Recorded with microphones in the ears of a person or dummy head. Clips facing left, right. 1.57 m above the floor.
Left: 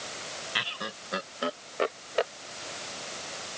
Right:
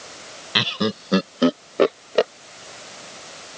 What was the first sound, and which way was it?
Laughter, 70° right (ahead or behind).